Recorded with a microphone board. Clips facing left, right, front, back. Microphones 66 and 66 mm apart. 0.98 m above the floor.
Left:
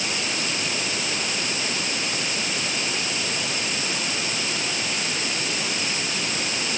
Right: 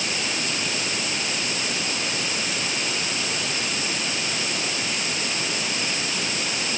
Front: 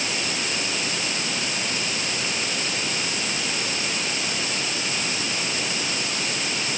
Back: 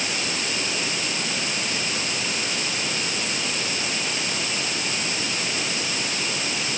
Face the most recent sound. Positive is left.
No sound to turn to.